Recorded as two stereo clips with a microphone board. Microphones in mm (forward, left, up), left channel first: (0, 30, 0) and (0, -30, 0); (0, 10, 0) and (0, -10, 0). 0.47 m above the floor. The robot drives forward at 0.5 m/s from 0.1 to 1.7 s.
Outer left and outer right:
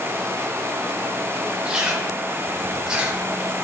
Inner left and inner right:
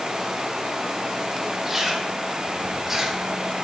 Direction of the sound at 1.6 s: 15° right (ahead or behind).